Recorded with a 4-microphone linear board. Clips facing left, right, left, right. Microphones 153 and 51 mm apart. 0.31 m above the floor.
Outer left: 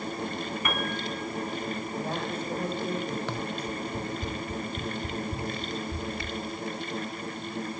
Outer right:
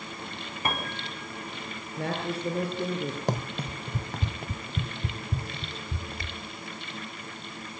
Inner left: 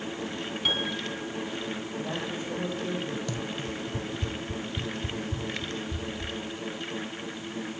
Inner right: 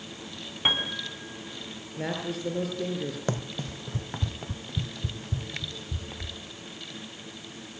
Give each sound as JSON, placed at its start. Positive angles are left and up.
{"t": 0.7, "sound": "a piano", "side_deg": -30, "distance_m": 3.0}
{"t": 2.0, "sound": "a man speaking", "side_deg": -80, "distance_m": 7.5}
{"t": 3.3, "sound": "running footsteps", "side_deg": -40, "distance_m": 0.7}